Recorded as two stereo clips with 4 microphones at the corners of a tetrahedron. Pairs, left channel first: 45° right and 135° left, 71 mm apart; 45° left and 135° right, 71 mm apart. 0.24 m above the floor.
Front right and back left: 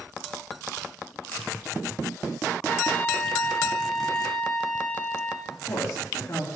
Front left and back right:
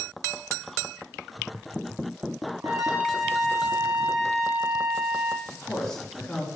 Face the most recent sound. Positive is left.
turn(degrees=-35)